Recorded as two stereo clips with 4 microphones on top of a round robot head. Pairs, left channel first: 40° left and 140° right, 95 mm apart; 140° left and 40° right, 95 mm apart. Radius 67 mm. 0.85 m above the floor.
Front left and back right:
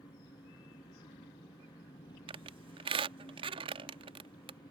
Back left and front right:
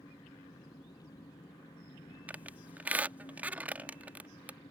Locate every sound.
0.0 s an engine running: 85° left
2.3 s a squeak: 115° right